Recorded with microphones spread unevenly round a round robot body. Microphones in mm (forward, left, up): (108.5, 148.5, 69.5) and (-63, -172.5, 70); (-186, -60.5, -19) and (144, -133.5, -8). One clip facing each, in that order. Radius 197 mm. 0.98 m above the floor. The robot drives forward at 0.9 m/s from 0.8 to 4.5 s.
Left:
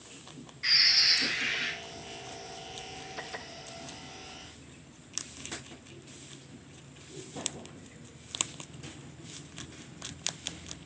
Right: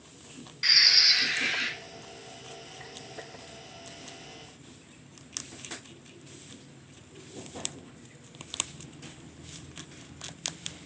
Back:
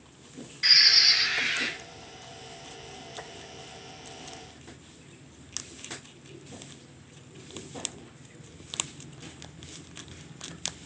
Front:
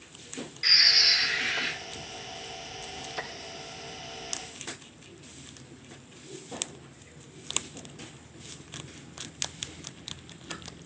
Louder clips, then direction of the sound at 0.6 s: Right 2 dB, front 2 dB; 140° right.